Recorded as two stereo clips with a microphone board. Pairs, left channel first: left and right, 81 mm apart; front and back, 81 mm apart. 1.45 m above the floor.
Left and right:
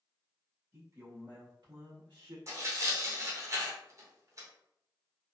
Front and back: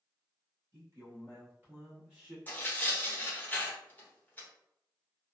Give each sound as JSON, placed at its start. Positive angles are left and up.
{"t": 0.7, "sound": "a man speaking", "azimuth_deg": -140, "distance_m": 1.7}
{"t": 2.5, "sound": "tearing paper", "azimuth_deg": -60, "distance_m": 0.8}